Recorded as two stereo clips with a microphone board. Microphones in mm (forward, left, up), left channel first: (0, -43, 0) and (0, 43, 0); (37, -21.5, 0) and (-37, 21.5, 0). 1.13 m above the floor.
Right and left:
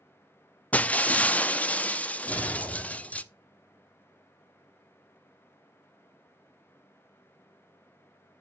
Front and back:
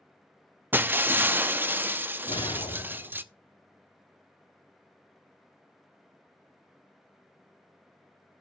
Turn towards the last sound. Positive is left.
turn(degrees=-15)